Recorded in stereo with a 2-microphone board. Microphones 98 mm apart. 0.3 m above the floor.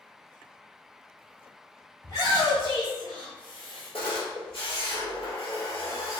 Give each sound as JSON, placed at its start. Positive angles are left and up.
{"t": 2.0, "sound": "a shout", "side_deg": 45, "distance_m": 1.4}
{"t": 3.9, "sound": "a camera shutter", "side_deg": 60, "distance_m": 1.7}